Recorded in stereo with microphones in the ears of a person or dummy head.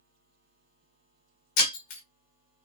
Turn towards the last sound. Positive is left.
turn(degrees=45)  # may be behind; listen again after turning